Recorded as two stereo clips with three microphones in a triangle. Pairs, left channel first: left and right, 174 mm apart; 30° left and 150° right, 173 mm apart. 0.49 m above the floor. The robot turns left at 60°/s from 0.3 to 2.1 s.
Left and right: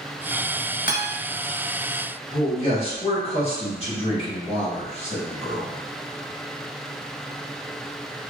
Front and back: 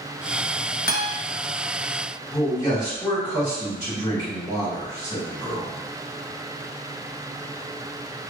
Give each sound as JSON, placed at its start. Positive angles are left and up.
{"t": 0.9, "sound": "a guitar", "azimuth_deg": 60, "distance_m": 0.7}
{"t": 2.3, "sound": "a man speaking", "azimuth_deg": 80, "distance_m": 1.5}